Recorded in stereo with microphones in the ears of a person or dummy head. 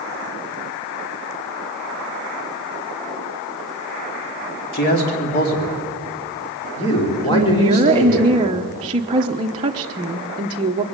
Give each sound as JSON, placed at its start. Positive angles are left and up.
{"t": 4.7, "sound": "a man speaking", "side_deg": 60, "distance_m": 3.5}
{"t": 7.2, "sound": "a woman speaking", "side_deg": -25, "distance_m": 1.0}